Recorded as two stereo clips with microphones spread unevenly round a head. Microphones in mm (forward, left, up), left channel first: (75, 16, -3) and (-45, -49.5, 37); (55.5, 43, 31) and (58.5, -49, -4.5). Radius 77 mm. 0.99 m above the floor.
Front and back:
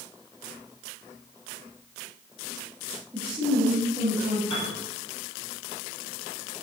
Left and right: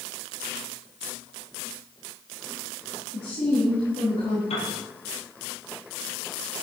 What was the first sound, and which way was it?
A woman speaking, 130° left.